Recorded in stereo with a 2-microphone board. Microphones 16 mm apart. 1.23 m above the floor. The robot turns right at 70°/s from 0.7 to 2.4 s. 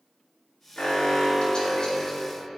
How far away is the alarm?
About 3 m.